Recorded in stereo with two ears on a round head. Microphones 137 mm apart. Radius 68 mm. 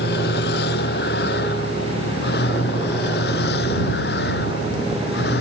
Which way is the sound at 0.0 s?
75° left (ahead or behind).